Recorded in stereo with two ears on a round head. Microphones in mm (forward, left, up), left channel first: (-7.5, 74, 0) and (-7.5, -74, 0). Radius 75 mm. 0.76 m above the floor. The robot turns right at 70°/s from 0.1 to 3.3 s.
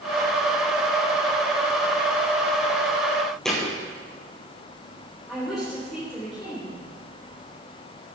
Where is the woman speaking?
Centre (ahead or behind), 3.5 m.